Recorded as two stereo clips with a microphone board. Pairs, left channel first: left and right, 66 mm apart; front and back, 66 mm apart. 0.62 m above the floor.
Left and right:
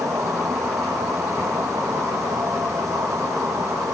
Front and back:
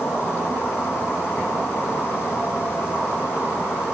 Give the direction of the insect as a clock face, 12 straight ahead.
2 o'clock.